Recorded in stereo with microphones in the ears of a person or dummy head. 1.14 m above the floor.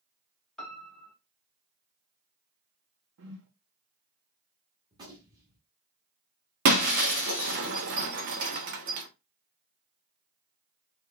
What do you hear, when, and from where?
0.6 s a piano: 5° left (ahead or behind), 1.2 m
3.2 s a whoosh: 60° right (ahead or behind), 0.8 m
4.9 s a gunshot: 25° right (ahead or behind), 1.5 m
6.7 s breaking glass: 45° right (ahead or behind), 0.7 m